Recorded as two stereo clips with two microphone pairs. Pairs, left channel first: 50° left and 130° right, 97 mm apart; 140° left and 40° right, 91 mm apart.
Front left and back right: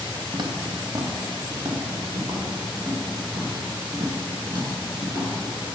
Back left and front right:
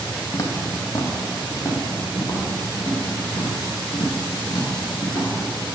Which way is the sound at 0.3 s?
165° right.